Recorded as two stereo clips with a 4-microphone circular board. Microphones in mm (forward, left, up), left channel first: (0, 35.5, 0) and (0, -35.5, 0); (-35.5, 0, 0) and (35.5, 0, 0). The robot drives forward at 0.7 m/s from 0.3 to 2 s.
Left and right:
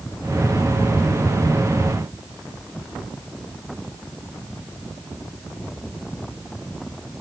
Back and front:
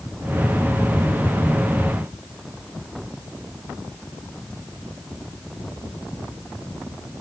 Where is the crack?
I don't hear a crack.